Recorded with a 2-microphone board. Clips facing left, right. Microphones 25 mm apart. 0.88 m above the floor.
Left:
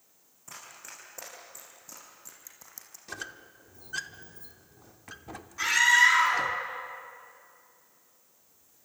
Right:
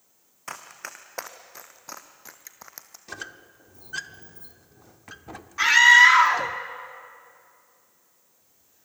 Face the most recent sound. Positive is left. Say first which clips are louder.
# right 7 dB
turn(degrees=-35)  # may be behind; listen again after turning